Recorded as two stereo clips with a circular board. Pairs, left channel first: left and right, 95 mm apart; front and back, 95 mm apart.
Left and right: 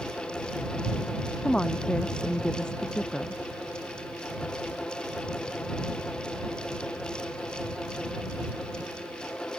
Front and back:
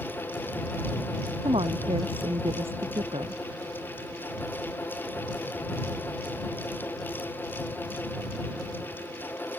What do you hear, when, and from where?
1.4 s a woman speaking: 170° left